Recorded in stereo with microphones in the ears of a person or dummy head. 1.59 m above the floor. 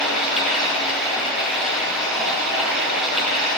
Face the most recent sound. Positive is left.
turn(degrees=0)  # may be behind; listen again after turning